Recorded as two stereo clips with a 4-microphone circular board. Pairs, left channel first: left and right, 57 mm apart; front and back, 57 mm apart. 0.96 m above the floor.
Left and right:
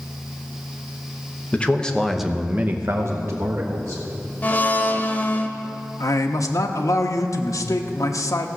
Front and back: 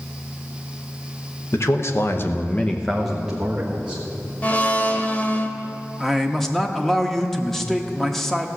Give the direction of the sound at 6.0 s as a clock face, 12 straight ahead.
9 o'clock.